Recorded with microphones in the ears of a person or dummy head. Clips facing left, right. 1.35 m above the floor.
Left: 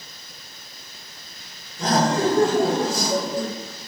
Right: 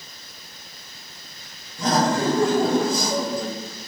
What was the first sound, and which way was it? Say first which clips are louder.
Laughter: left 1 dB; 85° right.